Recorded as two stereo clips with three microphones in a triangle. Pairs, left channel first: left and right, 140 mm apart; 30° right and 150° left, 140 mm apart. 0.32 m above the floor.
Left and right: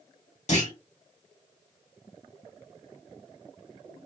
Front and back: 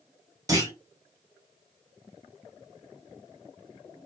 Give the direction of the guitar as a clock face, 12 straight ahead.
No guitar in this recording.